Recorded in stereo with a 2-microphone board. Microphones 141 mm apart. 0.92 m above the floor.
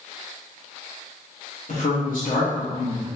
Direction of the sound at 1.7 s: 70° left (ahead or behind).